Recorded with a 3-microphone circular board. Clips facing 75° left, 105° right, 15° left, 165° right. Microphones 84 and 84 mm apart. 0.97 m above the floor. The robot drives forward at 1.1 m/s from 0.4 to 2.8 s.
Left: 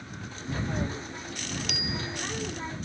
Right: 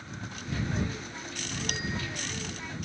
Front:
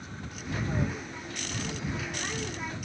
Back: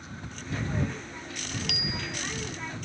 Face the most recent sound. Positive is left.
turn(degrees=-155)